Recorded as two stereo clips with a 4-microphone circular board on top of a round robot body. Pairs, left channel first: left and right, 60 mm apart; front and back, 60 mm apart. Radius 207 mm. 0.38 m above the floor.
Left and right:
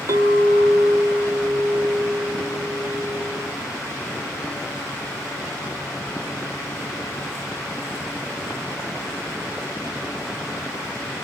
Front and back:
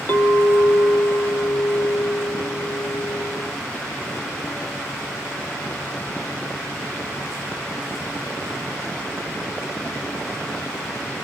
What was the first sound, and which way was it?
A clink, 60° right.